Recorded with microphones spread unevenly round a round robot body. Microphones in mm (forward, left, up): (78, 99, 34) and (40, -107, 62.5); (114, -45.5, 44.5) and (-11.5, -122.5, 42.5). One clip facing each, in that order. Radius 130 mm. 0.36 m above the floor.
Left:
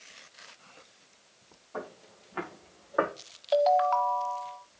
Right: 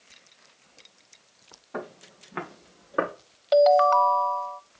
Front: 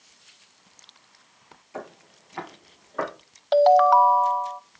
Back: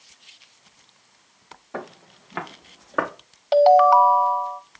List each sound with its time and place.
1.7 s footsteps: 135° right, 2.5 m; by 3.1 s 165° right, 2.5 m
3.5 s a ringtone: 65° right, 0.9 m